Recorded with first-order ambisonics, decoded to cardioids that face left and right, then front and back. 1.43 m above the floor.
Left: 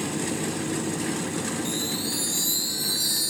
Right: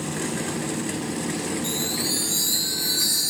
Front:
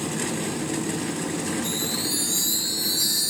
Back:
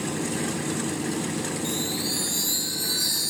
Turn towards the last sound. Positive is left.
turn(degrees=-60)